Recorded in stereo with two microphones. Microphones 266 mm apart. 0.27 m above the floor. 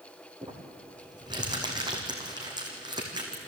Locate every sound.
0.4 s crumpling: 15° right (ahead or behind), 4 m